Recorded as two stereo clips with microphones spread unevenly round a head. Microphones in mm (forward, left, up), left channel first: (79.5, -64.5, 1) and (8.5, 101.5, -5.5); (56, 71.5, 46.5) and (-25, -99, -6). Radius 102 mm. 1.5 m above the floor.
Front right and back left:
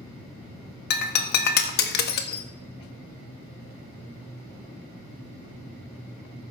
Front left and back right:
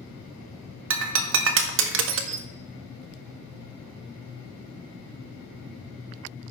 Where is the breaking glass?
90° right, 1.0 m.